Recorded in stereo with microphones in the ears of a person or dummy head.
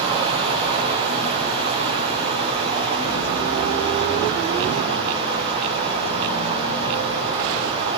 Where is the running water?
30° right (ahead or behind), 9.5 m.